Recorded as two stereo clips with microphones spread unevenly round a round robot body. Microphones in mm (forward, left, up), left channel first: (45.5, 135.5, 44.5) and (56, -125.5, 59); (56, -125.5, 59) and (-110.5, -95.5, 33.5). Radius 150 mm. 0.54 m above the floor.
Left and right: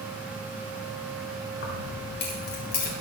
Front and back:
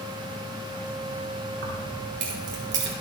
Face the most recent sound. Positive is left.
turn(degrees=155)